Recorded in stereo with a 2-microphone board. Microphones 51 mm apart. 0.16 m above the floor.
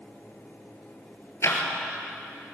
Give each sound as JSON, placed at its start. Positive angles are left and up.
{"t": 1.4, "sound": "ticking", "side_deg": 60, "distance_m": 2.5}